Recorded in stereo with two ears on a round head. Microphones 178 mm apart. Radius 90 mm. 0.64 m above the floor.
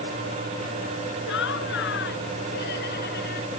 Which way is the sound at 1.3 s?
70° left (ahead or behind).